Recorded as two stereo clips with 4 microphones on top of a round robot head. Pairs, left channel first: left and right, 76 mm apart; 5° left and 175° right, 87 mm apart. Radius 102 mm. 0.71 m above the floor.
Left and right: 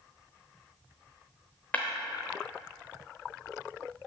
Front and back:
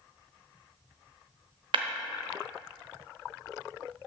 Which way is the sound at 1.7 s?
165° left.